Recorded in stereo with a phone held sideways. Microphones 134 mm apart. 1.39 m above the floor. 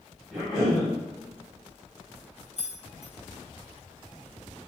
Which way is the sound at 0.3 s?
Centre (ahead or behind).